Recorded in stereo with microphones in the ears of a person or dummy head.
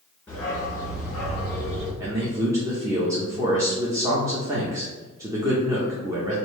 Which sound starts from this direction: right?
A man speaking, at 2.0 s.